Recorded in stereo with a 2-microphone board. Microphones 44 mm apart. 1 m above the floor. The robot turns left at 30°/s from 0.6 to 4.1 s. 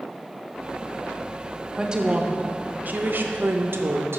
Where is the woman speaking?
15° right, 0.7 m; by 4.2 s 85° right, 0.7 m.